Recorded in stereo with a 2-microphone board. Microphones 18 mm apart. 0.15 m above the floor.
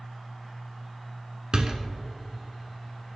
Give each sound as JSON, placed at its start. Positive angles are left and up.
{"t": 1.5, "sound": "a door slam", "side_deg": -45, "distance_m": 1.2}